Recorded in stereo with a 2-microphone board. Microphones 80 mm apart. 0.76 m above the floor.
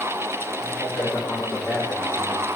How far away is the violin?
No violin in this recording.